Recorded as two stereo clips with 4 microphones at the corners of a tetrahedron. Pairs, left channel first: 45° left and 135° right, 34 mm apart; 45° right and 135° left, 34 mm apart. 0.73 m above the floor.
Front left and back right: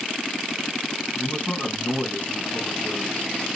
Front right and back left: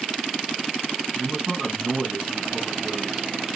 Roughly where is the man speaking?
Ahead left.